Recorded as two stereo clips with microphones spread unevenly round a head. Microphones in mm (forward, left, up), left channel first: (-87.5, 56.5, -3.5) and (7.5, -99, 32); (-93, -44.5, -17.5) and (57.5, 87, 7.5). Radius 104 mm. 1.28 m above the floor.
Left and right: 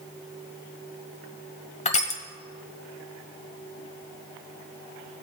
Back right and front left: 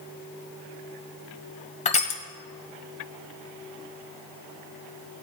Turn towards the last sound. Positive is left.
turn(degrees=170)